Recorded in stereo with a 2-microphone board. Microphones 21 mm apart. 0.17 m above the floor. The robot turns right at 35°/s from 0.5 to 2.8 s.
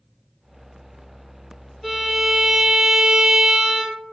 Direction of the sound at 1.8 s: Straight behind.